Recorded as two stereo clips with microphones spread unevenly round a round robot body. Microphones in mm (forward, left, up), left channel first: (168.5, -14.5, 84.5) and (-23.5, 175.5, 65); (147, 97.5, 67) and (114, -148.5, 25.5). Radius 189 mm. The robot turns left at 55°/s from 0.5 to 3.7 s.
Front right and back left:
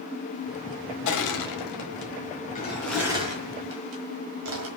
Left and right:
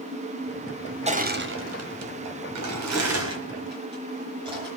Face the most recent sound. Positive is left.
turn(degrees=-175)